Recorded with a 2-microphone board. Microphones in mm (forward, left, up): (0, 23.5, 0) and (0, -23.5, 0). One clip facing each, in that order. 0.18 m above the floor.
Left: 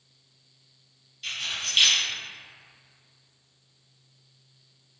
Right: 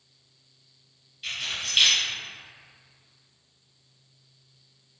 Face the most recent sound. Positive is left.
turn(degrees=-10)  # may be behind; listen again after turning